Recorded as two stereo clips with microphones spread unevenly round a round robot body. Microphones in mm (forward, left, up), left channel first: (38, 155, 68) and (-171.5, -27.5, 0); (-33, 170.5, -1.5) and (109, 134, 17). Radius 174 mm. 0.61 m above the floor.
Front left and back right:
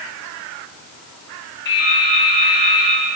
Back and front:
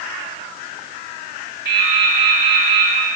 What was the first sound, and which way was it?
Dripping, 25° right.